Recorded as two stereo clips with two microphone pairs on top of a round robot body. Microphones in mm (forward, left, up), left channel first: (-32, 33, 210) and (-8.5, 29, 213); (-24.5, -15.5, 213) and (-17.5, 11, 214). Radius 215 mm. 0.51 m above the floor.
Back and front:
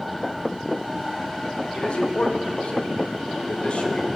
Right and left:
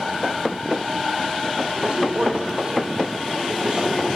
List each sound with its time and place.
1.7 s a man speaking: 135° left, 4 m